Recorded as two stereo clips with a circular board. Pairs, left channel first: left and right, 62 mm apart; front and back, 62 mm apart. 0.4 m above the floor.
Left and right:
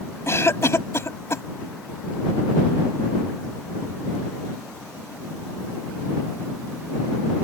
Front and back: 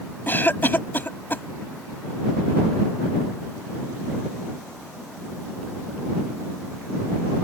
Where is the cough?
55° left.